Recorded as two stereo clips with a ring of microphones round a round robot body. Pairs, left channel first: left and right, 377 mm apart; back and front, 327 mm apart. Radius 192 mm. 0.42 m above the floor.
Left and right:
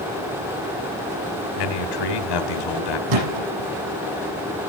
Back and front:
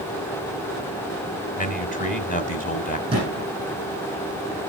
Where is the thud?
75° right, 9.5 m.